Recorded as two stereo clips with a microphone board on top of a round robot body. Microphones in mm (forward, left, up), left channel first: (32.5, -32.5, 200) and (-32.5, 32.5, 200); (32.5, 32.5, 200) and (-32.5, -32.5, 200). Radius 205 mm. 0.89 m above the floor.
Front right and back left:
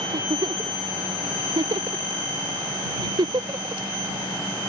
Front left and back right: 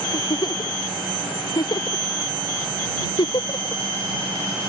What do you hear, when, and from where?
0.1 s a giggle: 90° left